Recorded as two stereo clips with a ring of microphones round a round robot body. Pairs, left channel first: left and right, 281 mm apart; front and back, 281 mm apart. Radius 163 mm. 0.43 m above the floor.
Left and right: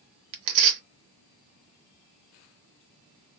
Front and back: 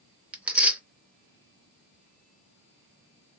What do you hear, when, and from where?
0.3 s tearing paper: 95° right, 0.8 m